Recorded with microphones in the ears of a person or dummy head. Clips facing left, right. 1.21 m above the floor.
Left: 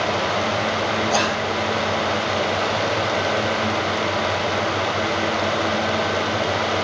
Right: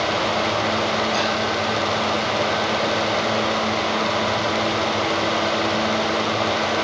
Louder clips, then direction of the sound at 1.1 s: Left 1 dB; 55° left (ahead or behind).